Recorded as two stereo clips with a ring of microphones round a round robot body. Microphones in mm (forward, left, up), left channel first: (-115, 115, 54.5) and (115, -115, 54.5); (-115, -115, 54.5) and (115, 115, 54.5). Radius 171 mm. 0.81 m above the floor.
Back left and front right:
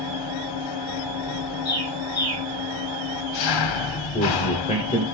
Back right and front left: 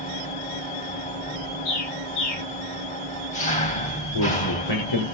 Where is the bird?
145° right, 10 m.